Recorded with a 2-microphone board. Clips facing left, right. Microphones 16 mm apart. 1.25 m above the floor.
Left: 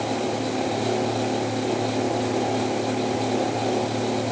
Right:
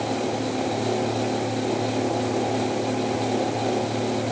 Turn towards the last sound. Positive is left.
No sound to turn to.